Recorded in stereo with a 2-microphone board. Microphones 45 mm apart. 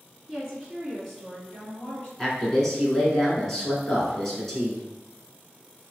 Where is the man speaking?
10° left (ahead or behind), 1.1 m.